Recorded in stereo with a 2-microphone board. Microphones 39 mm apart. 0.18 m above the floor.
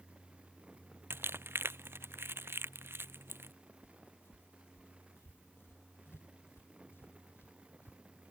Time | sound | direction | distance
1.1 | crumpling | 70° right (ahead or behind) | ?
3.8 | footsteps | 70° left (ahead or behind) | ?